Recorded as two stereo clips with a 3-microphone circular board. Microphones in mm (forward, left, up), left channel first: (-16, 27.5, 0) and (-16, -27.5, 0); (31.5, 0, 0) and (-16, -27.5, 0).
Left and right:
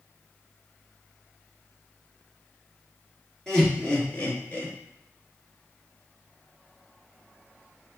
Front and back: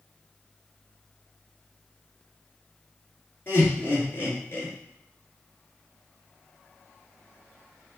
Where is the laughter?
15° left, 1.6 m; by 4.7 s 50° left, 1.6 m.